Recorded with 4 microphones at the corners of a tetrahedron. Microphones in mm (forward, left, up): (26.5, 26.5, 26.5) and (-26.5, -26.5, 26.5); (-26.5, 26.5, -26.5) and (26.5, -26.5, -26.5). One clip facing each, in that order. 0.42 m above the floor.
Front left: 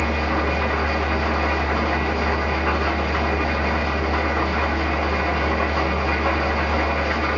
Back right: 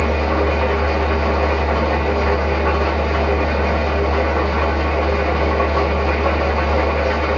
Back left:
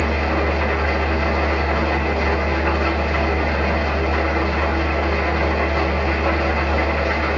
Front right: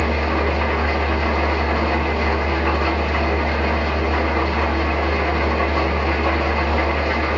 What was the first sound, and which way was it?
An engine running, 140° right.